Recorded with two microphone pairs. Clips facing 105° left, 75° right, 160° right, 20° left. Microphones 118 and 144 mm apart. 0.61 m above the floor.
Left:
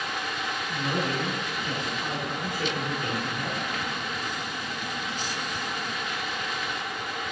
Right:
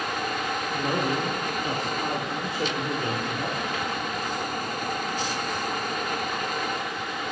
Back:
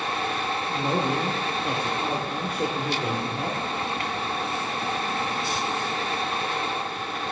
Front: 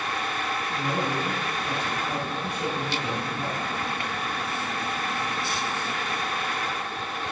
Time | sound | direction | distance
0.7 | a man speaking | 130° right | 1.3 m